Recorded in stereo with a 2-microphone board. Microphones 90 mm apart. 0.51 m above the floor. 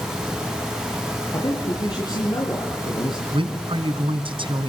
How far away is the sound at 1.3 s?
About 8 m.